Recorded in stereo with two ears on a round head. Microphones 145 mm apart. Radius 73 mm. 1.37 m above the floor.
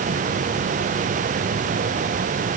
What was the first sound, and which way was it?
Only background noise.